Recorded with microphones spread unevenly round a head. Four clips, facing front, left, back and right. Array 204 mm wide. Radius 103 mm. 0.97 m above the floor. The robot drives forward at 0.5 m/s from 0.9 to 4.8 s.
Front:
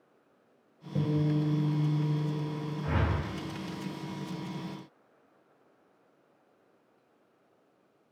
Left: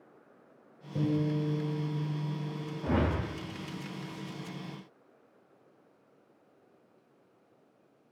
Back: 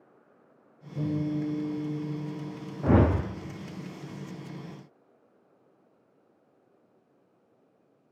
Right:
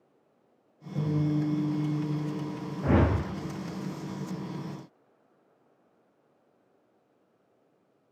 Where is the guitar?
20° left, 8 m; by 3.0 s 25° left, 7 m.